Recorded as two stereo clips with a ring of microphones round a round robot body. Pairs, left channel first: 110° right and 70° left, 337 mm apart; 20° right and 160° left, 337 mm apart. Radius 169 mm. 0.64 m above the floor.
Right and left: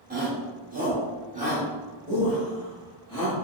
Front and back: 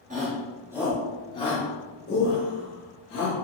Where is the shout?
110° left, 1.3 m; by 3.4 s 15° right, 1.7 m.